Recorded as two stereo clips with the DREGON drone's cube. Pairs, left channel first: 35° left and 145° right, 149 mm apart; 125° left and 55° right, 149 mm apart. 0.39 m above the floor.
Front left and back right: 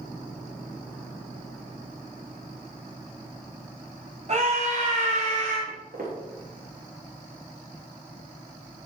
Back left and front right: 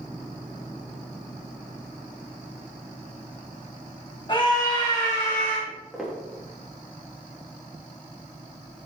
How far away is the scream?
About 2.5 m.